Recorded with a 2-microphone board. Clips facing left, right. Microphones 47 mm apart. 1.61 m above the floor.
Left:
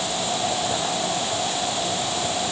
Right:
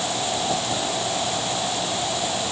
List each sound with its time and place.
Only background noise.